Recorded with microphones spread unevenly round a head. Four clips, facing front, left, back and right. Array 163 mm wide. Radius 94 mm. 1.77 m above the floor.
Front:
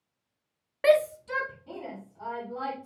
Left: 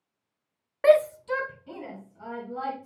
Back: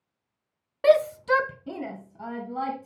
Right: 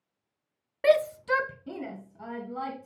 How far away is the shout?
About 0.5 m.